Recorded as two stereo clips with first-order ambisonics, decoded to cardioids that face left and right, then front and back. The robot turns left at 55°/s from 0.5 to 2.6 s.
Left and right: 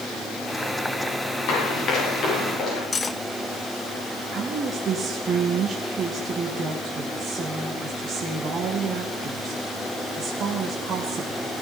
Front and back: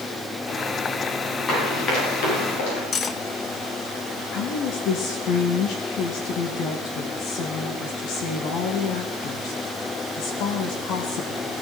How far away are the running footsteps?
About 8 m.